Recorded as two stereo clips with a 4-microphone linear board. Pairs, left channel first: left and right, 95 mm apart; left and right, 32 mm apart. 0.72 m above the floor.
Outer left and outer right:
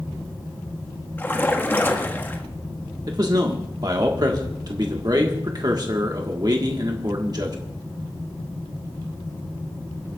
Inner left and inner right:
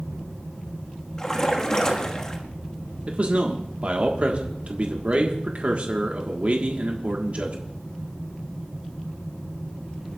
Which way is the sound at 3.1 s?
45° right (ahead or behind).